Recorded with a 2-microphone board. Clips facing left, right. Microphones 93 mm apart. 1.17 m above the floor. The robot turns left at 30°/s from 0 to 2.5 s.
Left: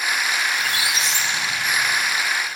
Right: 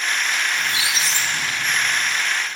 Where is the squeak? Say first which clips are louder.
Even; 25° right, 1.0 m; by 2.2 s 75° right, 1.0 m.